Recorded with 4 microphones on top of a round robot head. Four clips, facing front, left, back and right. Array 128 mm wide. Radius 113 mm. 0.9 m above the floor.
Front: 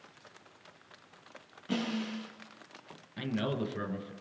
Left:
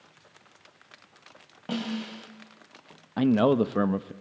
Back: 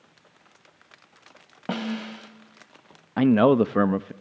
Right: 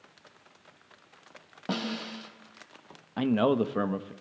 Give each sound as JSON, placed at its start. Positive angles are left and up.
{"t": 1.7, "sound": "a snare drum", "azimuth_deg": -165, "distance_m": 4.0}
{"t": 3.2, "sound": "a man speaking", "azimuth_deg": 170, "distance_m": 0.8}